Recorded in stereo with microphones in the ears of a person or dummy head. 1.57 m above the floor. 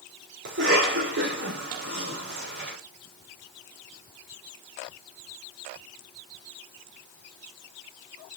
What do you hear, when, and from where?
0.5 s a cough: 65° right (ahead or behind), 6 m